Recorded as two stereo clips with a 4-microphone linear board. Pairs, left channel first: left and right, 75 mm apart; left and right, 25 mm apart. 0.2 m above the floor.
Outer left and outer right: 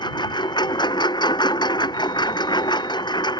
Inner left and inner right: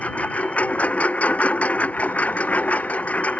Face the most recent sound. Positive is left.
turn(degrees=70)  # may be behind; listen again after turning